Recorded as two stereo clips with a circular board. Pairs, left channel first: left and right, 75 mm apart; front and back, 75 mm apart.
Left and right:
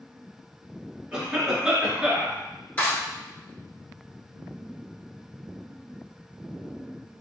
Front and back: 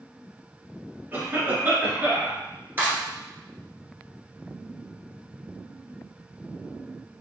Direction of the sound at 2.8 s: 140° left.